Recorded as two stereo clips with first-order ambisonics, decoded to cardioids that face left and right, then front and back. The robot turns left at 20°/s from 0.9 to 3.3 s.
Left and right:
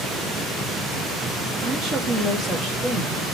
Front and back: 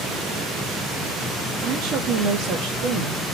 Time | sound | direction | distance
1.6 | a woman speaking | 135° right | 3.5 m